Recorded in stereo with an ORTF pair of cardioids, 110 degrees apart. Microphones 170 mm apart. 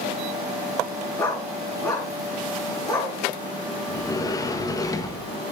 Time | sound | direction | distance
1.2 | a dog barking | 20° left | 6.5 m
3.9 | a sliding door | 20° left | 1.3 m